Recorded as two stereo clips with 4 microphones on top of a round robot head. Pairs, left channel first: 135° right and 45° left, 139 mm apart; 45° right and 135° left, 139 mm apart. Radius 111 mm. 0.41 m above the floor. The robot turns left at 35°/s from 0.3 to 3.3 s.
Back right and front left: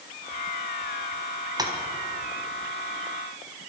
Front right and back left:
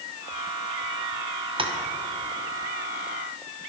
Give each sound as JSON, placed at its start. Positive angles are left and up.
{"t": 1.6, "sound": "tapping", "azimuth_deg": 95, "distance_m": 2.0}